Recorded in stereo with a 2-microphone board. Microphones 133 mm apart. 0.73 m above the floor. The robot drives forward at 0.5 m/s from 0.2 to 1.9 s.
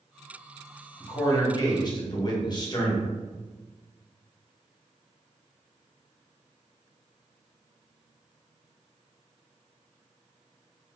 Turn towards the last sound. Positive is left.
turn(degrees=35)  # may be behind; listen again after turning